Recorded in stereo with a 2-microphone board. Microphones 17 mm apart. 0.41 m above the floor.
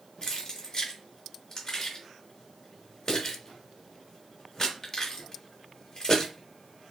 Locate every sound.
0.2 s keys jangling: 40° left (ahead or behind), 1.0 m